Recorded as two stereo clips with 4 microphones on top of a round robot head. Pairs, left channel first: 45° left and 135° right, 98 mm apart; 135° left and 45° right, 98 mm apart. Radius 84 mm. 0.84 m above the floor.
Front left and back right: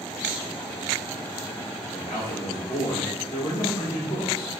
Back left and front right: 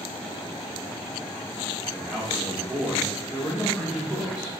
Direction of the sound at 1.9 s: 30° left.